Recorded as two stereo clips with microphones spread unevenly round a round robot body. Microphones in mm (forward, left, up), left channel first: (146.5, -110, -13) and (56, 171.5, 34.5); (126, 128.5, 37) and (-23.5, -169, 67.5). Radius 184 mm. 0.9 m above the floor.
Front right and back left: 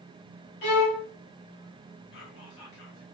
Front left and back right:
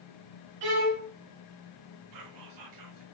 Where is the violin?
110° right, 2 m.